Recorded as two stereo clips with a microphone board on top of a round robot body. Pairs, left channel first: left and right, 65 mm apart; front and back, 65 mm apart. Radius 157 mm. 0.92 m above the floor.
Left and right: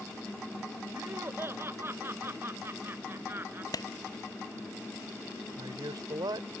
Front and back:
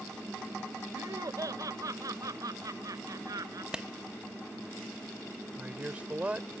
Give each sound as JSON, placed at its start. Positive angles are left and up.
{"t": 0.9, "sound": "laughter", "azimuth_deg": -145}
{"t": 3.7, "sound": "a clap", "azimuth_deg": 105}
{"t": 5.6, "sound": "a man speaking", "azimuth_deg": -110}